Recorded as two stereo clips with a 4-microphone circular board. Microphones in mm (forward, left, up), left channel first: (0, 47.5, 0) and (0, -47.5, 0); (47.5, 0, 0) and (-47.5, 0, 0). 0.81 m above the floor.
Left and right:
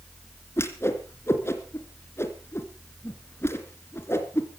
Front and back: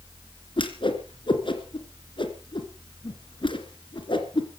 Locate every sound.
0.6 s a whoosh: 25° left, 2.5 m